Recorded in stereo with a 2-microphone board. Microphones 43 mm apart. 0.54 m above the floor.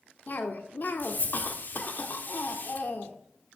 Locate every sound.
0.3 s a cough: 45° left (ahead or behind), 1.4 m